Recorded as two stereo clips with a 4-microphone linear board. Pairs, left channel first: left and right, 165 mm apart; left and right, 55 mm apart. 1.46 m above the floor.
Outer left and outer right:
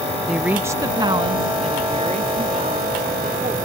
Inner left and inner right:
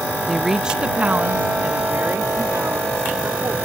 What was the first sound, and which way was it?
A woman speaking, centre (ahead or behind).